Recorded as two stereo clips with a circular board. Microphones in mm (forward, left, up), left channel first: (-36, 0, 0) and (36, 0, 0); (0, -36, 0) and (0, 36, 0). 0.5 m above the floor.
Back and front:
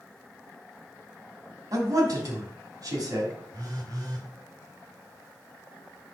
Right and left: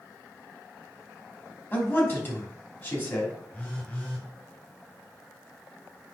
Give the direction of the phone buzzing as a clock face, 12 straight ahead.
1 o'clock.